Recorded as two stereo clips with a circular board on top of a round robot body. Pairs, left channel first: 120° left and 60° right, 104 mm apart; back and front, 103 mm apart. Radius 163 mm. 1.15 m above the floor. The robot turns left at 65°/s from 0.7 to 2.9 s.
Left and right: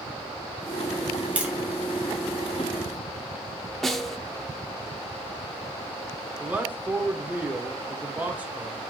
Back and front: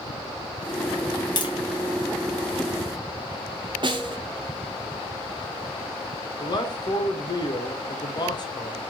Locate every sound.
1.4 s tapping: 135° right, 1.1 m; by 1.5 s 150° right, 1.1 m
3.8 s a snare drum: 30° left, 1.0 m
6.4 s a man speaking: 135° right, 1.1 m